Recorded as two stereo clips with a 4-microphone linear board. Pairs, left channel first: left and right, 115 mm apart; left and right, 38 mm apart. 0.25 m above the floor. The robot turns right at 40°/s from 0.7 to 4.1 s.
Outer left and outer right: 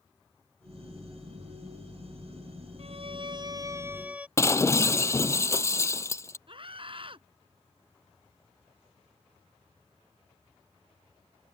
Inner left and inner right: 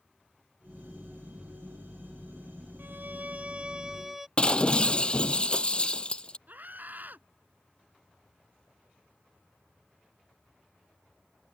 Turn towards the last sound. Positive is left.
turn(degrees=-50)  # may be behind; listen again after turning